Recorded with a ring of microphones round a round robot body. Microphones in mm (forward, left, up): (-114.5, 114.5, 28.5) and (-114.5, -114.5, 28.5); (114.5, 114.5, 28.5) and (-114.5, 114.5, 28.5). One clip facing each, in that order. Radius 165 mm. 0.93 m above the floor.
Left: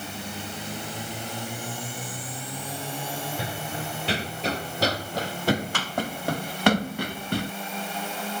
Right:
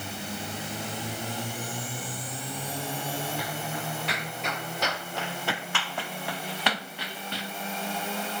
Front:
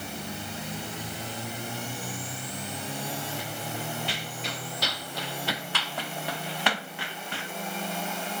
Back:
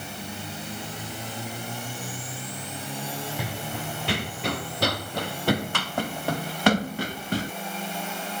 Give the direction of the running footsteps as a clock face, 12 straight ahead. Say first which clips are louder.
Left 1 dB, back 2 dB; 7 o'clock.